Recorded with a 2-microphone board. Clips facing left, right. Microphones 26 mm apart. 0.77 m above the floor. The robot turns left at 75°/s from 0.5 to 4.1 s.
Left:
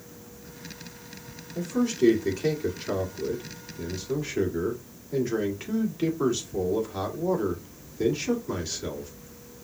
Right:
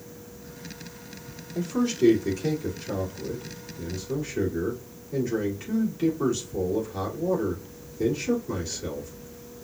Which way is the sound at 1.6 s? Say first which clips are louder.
Even; 30° right (ahead or behind).